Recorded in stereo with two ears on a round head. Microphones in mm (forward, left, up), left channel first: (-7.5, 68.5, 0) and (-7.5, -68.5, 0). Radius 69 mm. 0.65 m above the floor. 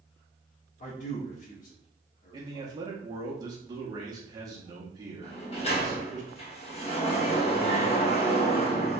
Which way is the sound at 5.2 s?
40° left (ahead or behind).